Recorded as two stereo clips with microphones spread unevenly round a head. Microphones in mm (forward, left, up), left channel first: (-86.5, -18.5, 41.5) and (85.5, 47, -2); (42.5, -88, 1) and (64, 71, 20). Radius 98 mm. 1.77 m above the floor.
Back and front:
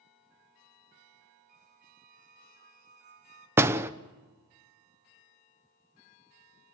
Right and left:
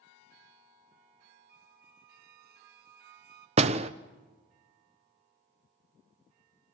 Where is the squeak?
75° left, 1.7 m.